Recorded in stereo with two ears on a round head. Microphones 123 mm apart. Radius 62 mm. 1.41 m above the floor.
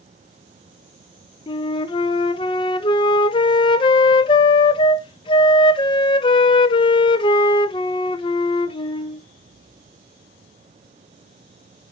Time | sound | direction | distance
1.5 | a flute | 35° left (ahead or behind) | 0.7 m